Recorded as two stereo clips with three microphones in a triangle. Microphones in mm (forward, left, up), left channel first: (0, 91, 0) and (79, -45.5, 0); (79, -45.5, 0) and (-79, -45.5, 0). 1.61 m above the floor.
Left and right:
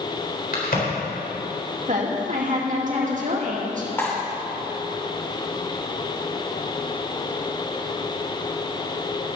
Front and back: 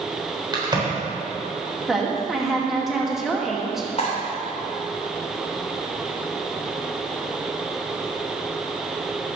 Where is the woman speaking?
90° right, 2.5 m.